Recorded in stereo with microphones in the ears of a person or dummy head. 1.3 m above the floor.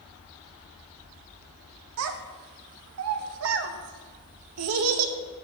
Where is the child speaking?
70° right (ahead or behind), 1.0 m.